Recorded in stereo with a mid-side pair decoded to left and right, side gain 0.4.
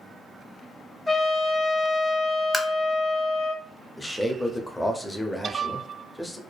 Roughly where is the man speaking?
Ahead.